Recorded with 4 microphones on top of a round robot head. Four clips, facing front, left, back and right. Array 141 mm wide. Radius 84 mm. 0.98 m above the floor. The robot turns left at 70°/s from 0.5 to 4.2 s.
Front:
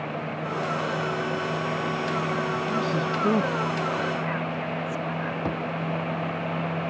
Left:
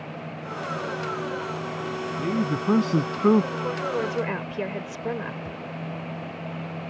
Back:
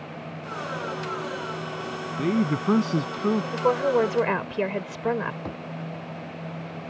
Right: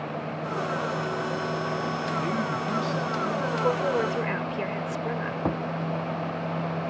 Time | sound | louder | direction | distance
2.2 | a man speaking | left 2 dB, back 2 dB | 170° left | ?
3.5 | a woman speaking | right 3 dB, back 5 dB | 150° right | ?
5.5 | a thud | right 9 dB, front 6 dB | 75° right | ?